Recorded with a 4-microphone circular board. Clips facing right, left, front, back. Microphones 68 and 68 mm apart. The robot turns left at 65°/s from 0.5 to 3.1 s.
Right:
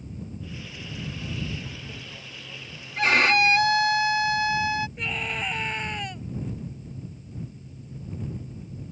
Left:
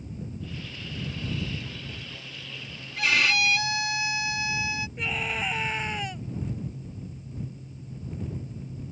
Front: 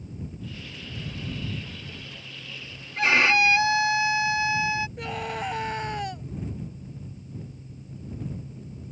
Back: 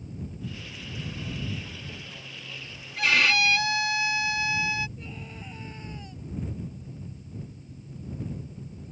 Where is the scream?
5° left.